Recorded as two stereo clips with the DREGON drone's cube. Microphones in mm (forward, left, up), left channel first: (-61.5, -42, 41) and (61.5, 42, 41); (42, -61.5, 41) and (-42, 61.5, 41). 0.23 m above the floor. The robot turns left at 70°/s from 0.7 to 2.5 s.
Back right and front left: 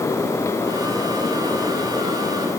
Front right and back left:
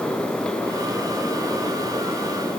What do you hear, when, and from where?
Only background noise.